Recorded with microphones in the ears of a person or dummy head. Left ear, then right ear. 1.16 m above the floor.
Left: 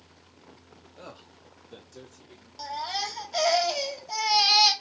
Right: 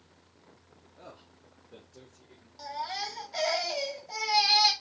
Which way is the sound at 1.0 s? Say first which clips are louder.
Left 4 dB; 70° left (ahead or behind).